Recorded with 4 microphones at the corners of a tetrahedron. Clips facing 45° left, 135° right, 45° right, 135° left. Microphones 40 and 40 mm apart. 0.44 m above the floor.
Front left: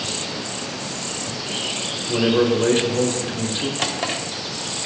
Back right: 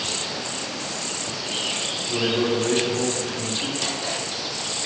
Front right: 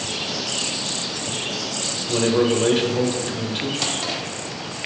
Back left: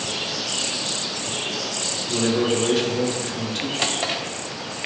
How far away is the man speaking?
About 1.0 m.